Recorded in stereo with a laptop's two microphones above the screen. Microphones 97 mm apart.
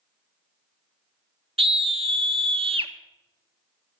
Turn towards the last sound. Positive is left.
turn(degrees=-70)  # may be behind; listen again after turning